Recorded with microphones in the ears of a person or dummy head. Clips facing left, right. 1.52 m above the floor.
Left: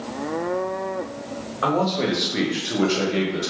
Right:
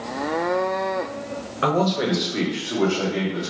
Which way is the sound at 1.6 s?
30° right (ahead or behind).